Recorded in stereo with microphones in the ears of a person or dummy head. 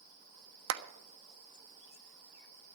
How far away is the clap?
About 1.2 m.